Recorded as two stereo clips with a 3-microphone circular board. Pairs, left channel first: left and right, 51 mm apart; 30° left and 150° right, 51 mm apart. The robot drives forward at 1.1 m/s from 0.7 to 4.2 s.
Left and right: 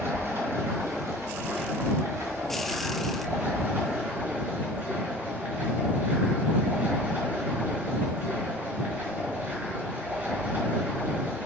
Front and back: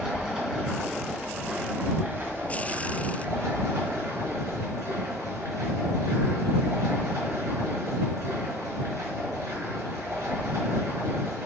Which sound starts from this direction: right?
Running water, at 0.0 s.